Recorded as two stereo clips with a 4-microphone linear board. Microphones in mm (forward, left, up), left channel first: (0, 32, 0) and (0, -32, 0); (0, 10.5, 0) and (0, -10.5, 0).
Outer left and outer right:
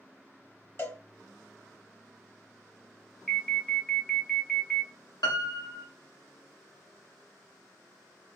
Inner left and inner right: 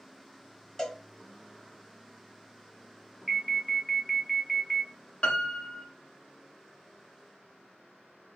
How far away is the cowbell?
About 1.0 m.